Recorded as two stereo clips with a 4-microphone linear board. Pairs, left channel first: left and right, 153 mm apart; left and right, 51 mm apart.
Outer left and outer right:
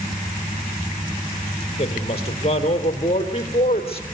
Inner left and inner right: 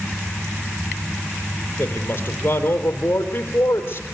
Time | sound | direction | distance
1.8 | a woman speaking | 40° left (ahead or behind) | 3 m